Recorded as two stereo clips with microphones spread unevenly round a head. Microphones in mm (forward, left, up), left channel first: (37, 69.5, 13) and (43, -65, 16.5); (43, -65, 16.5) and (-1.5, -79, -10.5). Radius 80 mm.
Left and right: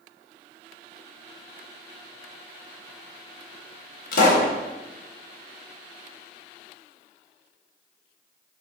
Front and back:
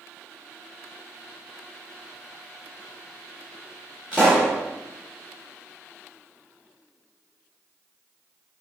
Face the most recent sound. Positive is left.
turn(degrees=120)